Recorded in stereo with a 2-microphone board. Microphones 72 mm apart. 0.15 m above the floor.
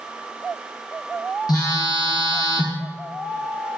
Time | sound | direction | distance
1.5 | a phone buzzing | 65° left (ahead or behind) | 2.5 m